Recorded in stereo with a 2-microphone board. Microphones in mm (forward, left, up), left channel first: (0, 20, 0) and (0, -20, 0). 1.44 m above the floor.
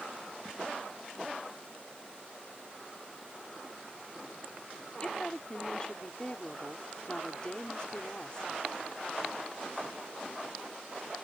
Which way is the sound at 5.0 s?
25° left (ahead or behind).